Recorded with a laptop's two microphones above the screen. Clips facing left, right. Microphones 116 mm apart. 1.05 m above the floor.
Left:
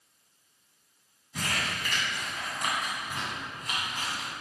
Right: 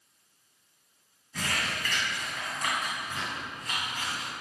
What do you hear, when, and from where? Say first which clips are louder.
1.3 s crumpling: even; 15° left (ahead or behind), 1.5 m